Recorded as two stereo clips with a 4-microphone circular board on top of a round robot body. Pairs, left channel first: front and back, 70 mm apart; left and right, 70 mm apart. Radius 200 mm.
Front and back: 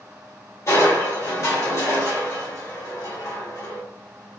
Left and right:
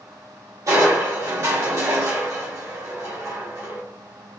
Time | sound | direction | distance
0.7 | crushing | 50° right | 2 m